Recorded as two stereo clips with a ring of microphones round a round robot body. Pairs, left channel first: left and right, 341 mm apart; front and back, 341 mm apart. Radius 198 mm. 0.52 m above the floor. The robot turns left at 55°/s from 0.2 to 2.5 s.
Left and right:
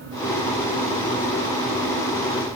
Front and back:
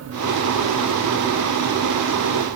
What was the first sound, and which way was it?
Only background noise.